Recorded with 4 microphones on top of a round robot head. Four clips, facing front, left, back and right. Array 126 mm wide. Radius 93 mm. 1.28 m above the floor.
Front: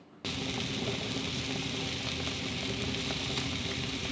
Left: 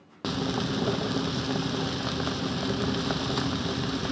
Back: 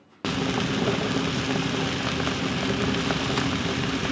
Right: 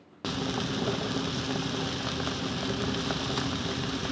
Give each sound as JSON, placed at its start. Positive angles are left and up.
{"t": 0.2, "sound": "frying", "azimuth_deg": 165}